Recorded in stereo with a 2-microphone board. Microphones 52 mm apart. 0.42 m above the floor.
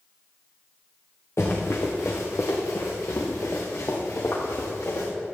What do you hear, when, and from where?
1.4 s running footsteps: 60° left (ahead or behind), 3 m; by 5.1 s 75° left (ahead or behind), 4.5 m